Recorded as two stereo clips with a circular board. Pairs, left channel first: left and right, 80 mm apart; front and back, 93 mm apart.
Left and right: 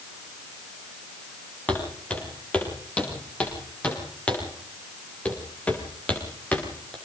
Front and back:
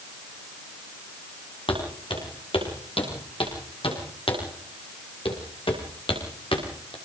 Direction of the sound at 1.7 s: 15° left.